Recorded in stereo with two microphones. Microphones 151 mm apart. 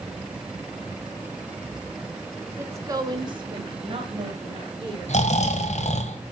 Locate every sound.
2.6 s a woman speaking: 15° right (ahead or behind), 1.7 m; by 6.0 s 30° right (ahead or behind), 4 m
5.1 s snoring: 45° left (ahead or behind), 1.4 m